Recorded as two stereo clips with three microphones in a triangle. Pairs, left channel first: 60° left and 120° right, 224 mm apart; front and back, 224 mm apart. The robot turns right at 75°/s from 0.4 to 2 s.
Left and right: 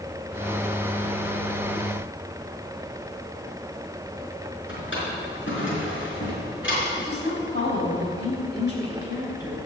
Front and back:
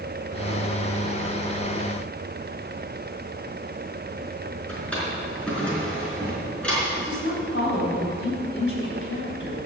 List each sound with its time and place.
4.7 s a drawer: 85° left, 4.5 m
7.0 s a woman speaking: 25° left, 4.5 m